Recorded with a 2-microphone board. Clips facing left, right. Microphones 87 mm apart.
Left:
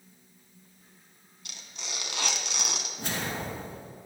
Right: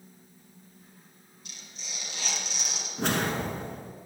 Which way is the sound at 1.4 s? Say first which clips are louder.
Left 4 dB; 75° left (ahead or behind).